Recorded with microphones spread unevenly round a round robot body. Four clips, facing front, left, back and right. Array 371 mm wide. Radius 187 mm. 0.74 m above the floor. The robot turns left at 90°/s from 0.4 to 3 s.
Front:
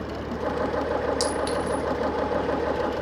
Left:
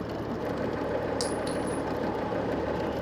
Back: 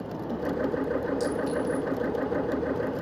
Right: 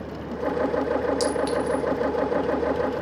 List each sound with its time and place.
1.2 s a clink: 10° left, 5 m; by 1.8 s 45° right, 5 m